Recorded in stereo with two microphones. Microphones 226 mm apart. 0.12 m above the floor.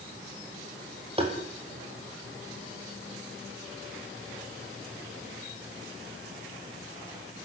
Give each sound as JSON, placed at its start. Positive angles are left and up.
{"t": 1.2, "sound": "tapping", "side_deg": -25, "distance_m": 5.5}